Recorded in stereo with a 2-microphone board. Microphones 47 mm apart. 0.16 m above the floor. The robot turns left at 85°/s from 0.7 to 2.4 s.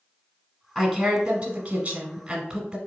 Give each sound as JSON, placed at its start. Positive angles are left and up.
{"t": 0.8, "sound": "a woman speaking", "azimuth_deg": 10, "distance_m": 1.1}